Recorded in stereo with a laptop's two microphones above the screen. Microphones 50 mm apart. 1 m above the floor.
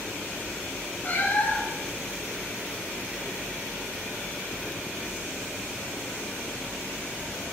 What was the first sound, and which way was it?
A cat meowing, 35° left (ahead or behind).